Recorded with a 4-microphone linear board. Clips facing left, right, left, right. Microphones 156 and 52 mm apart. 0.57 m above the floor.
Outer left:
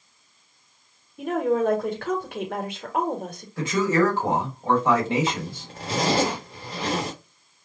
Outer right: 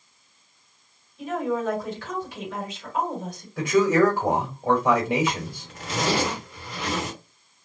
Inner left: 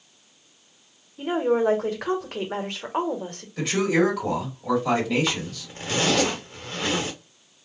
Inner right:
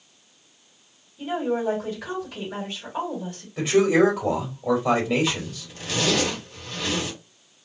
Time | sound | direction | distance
1.2 | a woman speaking | 65° left (ahead or behind) | 1.4 m
3.6 | a man speaking | 10° right (ahead or behind) | 2 m
5.3 | a zipper | 35° left (ahead or behind) | 1.5 m